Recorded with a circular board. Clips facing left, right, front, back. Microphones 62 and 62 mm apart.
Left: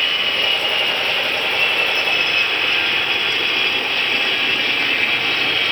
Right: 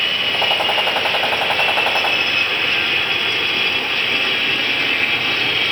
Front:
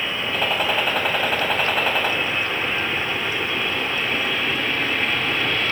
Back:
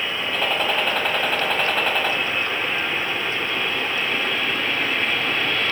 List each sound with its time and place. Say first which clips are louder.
0.3 s a gunshot: right 2 dB, even; 85° right, 3.5 m